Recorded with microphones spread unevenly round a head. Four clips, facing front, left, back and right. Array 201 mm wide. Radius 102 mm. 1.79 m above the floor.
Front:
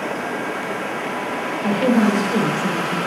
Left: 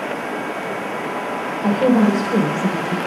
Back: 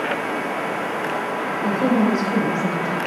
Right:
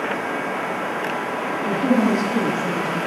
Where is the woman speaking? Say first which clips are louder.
Left 4 dB, front 2 dB; 85° left, 4 m; by 3.0 s 90° left, 2.5 m.